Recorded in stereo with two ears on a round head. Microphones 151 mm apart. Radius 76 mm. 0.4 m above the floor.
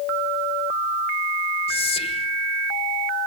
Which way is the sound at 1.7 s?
35° left (ahead or behind).